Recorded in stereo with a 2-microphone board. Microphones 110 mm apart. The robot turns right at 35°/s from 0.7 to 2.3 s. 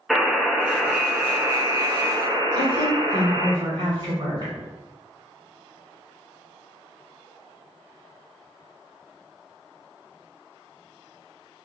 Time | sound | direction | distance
0.1 | a buzzer | straight behind | 0.5 m
2.5 | a woman speaking | 40° right (ahead or behind) | 1.4 m